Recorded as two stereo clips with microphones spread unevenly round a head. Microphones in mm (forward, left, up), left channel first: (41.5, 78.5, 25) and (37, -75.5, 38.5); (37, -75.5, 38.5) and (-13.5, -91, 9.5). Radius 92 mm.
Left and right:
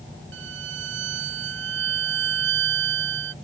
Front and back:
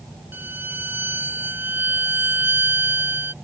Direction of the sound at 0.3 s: 110° right.